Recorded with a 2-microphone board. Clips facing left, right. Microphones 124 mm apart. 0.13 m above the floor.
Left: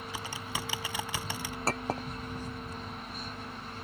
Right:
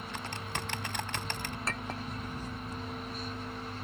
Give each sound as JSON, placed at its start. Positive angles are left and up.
{"t": 0.1, "sound": "typing on a keyboard", "side_deg": 5}
{"t": 1.7, "sound": "a clink", "side_deg": 35}